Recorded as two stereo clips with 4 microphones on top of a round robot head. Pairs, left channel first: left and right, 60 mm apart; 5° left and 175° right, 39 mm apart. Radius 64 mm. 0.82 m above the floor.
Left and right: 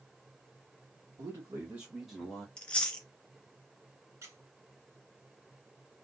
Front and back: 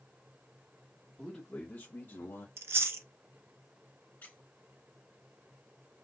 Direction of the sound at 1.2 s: 75° right.